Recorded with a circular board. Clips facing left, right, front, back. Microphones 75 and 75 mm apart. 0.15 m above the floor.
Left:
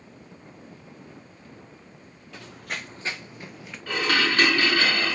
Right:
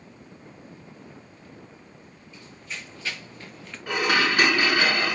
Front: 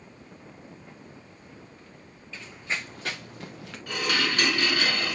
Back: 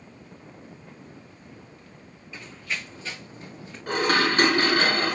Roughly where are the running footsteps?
Left.